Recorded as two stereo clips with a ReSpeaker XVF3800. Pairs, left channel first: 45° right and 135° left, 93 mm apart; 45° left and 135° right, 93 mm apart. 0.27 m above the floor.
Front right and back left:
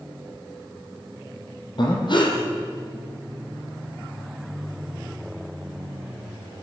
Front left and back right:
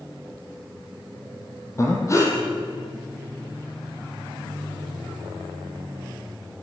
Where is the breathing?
10° right, 5 m.